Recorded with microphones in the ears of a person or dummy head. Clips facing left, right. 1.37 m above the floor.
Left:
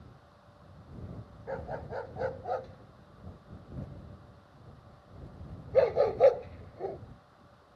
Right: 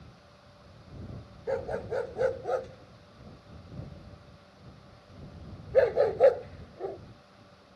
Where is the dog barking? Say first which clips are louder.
Right 7 dB; 55° right (ahead or behind); by 7.0 s 10° right (ahead or behind).